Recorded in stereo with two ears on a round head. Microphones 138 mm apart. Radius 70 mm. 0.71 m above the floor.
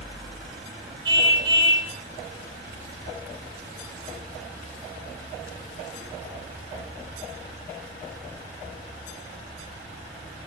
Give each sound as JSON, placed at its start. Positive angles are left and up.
{"t": 1.1, "sound": "a car horn", "side_deg": -30, "distance_m": 8.5}